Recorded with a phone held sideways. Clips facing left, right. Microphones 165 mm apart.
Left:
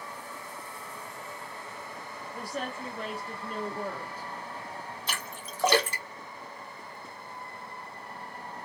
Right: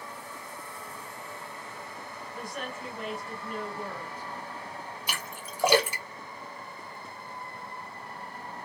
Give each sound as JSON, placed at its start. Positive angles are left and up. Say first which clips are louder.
{"t": 2.3, "sound": "a woman speaking", "louder": "left 3 dB", "side_deg": 35, "distance_m": 0.6}
{"t": 5.1, "sound": "a splash", "louder": "even", "side_deg": -10, "distance_m": 0.7}